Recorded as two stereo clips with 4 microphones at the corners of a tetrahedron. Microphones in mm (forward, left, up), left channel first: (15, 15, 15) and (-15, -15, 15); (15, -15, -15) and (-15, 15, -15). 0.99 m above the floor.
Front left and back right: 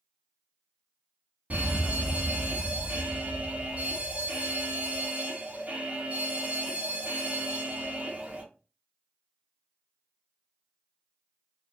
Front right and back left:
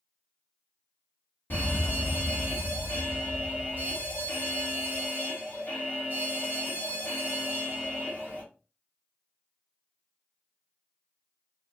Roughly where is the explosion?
No explosion in this recording.